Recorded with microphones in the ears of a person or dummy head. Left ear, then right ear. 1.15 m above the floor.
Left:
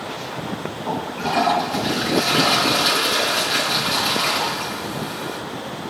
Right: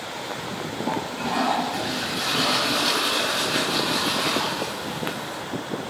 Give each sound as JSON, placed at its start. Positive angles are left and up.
{"t": 0.9, "sound": "a toilet flushing", "side_deg": 15, "distance_m": 7.5}